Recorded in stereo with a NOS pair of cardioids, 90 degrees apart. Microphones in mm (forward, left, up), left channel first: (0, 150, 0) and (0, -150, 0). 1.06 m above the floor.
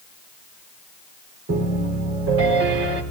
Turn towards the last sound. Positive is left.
turn(degrees=-50)